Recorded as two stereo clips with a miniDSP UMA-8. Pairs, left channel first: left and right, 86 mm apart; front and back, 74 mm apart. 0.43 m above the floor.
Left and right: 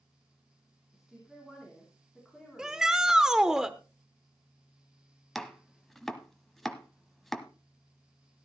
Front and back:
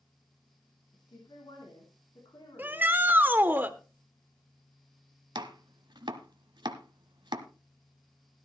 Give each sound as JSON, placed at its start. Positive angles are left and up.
{"t": 0.9, "sound": "a woman speaking", "azimuth_deg": -5, "distance_m": 4.0}
{"t": 2.6, "sound": "a shout", "azimuth_deg": -165, "distance_m": 1.1}
{"t": 5.3, "sound": "chopping", "azimuth_deg": 175, "distance_m": 1.1}